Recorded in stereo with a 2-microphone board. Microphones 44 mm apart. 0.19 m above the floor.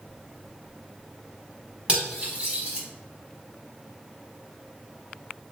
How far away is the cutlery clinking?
About 0.9 m.